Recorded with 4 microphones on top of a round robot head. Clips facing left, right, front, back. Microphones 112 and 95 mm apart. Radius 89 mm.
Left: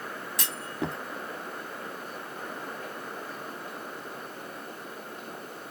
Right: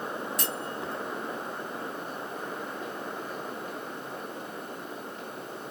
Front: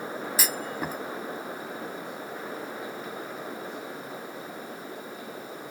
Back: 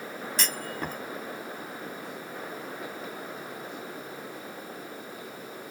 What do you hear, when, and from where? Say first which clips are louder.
0.4 s a clunk: even, even; 85° left